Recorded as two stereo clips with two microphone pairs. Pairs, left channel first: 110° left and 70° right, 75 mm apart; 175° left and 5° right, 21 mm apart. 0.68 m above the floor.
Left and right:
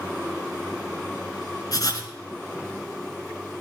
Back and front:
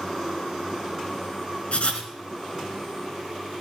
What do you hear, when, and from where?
1.7 s writing: 145° left, 2.5 m